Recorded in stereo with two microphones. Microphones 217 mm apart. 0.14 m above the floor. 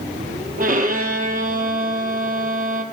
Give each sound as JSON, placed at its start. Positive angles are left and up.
{"t": 0.6, "sound": "a violin", "side_deg": -40, "distance_m": 0.8}